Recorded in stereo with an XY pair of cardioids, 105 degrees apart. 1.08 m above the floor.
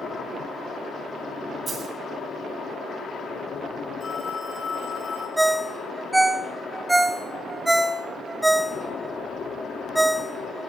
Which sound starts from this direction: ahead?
A ringtone, at 5.4 s.